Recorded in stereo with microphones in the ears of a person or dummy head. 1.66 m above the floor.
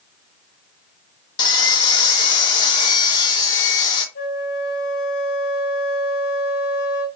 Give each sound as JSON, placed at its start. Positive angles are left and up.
{"t": 1.4, "sound": "sawing", "side_deg": 20, "distance_m": 0.7}
{"t": 4.2, "sound": "a flute", "side_deg": 60, "distance_m": 1.5}